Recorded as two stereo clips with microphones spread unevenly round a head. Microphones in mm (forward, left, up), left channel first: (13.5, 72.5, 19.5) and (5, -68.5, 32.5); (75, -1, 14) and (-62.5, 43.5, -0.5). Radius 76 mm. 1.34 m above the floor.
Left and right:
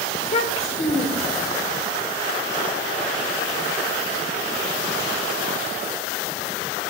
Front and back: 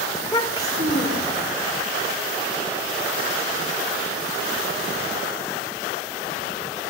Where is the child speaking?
45° left, 2.5 m.